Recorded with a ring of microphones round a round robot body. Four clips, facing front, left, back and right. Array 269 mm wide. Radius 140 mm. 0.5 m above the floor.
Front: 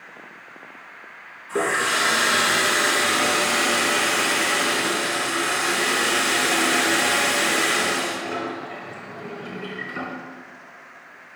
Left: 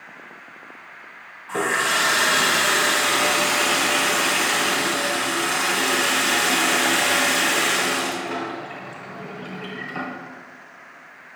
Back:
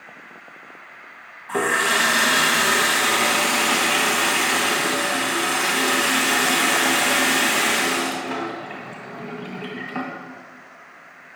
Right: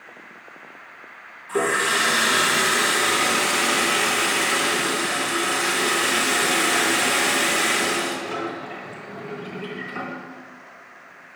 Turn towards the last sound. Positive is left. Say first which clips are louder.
# right 1 dB, back 2 dB
turn(degrees=165)